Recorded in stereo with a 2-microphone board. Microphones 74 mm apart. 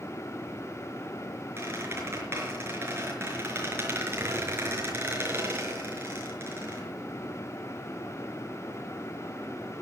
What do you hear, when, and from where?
1.6 s a squeak: 30° right (ahead or behind), 5 m